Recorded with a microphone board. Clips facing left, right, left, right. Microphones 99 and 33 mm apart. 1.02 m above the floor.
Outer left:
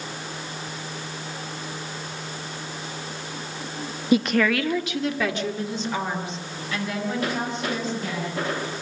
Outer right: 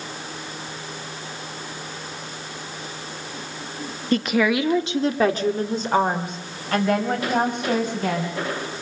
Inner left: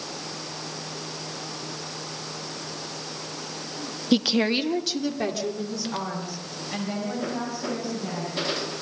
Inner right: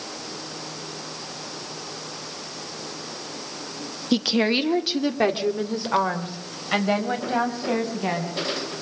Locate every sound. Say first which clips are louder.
4.1 s a woman speaking: even, inner right 1 dB; 10° left (ahead or behind), 1.2 m; by 8.3 s 60° right (ahead or behind), 6.5 m